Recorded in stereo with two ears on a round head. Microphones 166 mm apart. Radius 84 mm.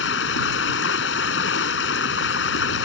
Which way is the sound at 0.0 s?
70° left (ahead or behind).